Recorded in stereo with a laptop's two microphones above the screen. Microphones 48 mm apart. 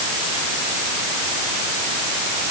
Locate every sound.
Only background noise.